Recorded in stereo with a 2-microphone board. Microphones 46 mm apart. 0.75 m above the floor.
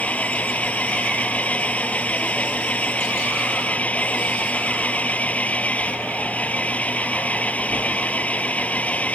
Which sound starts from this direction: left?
An engine running, at 0.0 s.